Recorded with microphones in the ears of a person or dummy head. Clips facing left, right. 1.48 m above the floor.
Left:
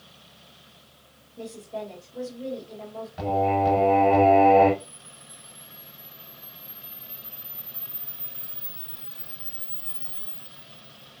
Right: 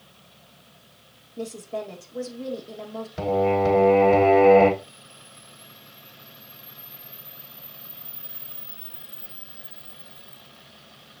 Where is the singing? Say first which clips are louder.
Right 2 dB; 50° right (ahead or behind), 3.5 m.